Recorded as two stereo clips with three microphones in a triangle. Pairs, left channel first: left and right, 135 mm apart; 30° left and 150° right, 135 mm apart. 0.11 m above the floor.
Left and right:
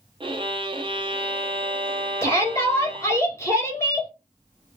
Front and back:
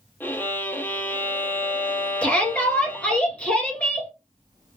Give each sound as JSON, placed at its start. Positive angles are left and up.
{"t": 0.2, "sound": "a violin", "azimuth_deg": -45, "distance_m": 0.5}
{"t": 2.2, "sound": "a shout", "azimuth_deg": 95, "distance_m": 1.7}